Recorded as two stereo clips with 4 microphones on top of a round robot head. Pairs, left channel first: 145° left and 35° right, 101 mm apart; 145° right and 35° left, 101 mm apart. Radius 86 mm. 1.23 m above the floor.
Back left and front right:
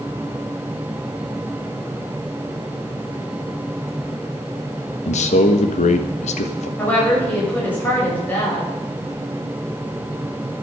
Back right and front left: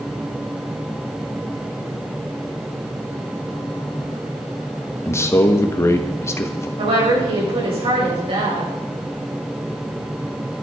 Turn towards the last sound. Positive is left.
turn(degrees=70)